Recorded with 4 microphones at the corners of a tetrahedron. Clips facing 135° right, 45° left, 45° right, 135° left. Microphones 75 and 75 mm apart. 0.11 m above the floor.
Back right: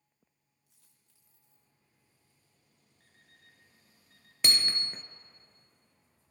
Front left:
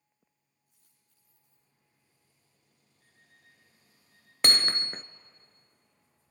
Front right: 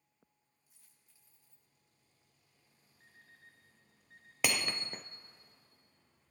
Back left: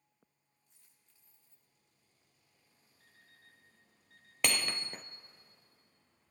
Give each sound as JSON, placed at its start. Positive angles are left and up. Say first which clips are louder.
{"t": 0.7, "sound": "a dropped coin", "louder": "back right 1 dB, even", "azimuth_deg": -125, "distance_m": 9.0}
{"t": 3.0, "sound": "an alarm clock", "louder": "even, front right 3 dB", "azimuth_deg": -105, "distance_m": 6.0}
{"t": 4.4, "sound": "hammering", "louder": "front left 4 dB, even", "azimuth_deg": 40, "distance_m": 0.6}